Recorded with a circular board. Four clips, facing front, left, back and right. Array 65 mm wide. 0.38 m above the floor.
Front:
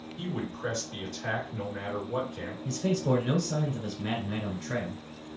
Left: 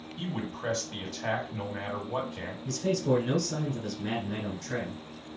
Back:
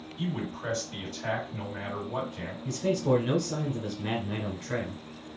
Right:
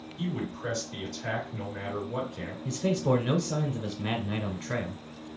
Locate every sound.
0.2 s a man speaking: 105° left, 1.9 m
2.6 s a man speaking: 100° right, 1.0 m